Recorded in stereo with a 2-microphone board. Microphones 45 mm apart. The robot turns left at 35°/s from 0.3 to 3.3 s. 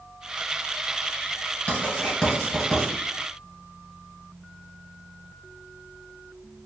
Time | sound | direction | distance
1.7 | writing | 35° left (ahead or behind) | 1.6 m